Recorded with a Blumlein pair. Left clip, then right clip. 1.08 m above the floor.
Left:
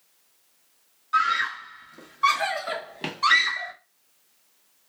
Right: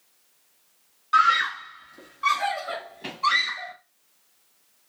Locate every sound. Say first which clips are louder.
1.1 s a scream: right 3 dB; 20° right, 1.0 m; by 3.7 s 45° left, 1.7 m